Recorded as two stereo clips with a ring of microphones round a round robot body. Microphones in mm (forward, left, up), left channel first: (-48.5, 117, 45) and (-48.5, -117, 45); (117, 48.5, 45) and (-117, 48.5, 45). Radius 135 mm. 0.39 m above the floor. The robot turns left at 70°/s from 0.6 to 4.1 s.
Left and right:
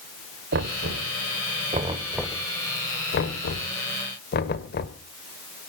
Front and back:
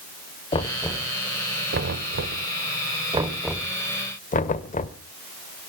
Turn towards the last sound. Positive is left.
turn(degrees=50)